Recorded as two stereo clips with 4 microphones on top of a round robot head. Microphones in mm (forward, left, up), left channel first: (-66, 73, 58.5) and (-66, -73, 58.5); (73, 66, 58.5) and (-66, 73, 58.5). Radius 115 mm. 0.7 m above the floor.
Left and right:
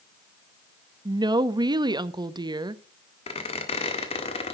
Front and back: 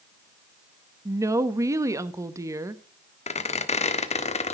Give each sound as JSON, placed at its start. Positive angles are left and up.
{"t": 1.1, "sound": "a woman speaking", "azimuth_deg": -130, "distance_m": 0.8}
{"t": 3.3, "sound": "a squeak", "azimuth_deg": 35, "distance_m": 1.4}